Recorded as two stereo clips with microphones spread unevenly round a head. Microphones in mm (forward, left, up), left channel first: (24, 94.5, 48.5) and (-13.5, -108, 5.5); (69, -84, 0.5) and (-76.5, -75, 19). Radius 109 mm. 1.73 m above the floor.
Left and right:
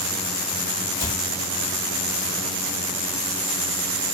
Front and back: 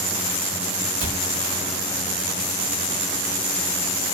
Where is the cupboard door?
145° left, 5 m.